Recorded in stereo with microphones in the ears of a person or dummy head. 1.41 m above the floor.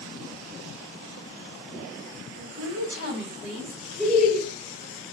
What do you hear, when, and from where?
2.4 s a woman speaking: 55° right (ahead or behind), 0.7 m; by 3.8 s 30° right (ahead or behind), 1.5 m
4.0 s laughter: 5° right (ahead or behind), 1.3 m